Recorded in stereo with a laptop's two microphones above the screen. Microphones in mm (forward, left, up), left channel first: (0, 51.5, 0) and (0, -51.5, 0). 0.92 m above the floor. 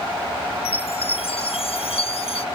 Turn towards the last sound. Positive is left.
turn(degrees=75)  # may be behind; listen again after turning